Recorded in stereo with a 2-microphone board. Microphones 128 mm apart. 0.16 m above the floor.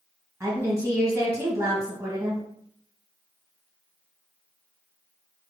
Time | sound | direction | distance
0.4 | a woman speaking | 25° right (ahead or behind) | 1.8 m